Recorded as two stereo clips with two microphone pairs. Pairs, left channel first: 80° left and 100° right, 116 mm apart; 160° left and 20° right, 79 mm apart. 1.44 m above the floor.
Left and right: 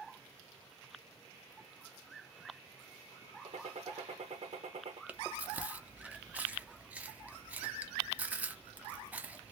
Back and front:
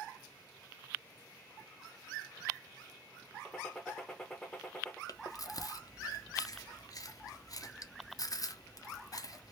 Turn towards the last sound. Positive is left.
turn(degrees=-170)